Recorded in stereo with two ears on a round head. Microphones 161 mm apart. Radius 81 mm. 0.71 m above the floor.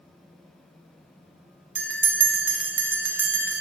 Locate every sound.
1.8 s a bell: 10° right (ahead or behind), 0.9 m